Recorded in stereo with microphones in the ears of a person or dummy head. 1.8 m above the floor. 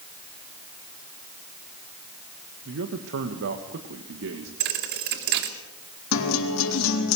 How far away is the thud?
About 2 m.